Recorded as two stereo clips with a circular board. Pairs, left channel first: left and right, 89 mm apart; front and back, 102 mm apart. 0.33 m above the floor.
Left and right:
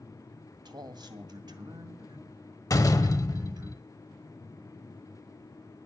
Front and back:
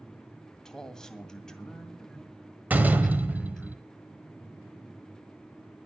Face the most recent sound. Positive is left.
turn(degrees=110)